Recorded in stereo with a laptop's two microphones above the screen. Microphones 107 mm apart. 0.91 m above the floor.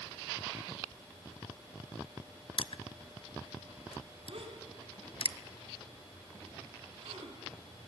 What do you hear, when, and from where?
2.6 s crushing: 55° left (ahead or behind), 0.6 m
4.3 s a gasp: 65° right (ahead or behind), 4 m